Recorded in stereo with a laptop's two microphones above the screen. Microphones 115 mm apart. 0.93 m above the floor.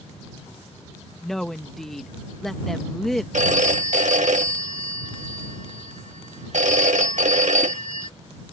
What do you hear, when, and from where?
1.2 s a woman speaking: centre (ahead or behind)
3.3 s a phone ringing: 85° right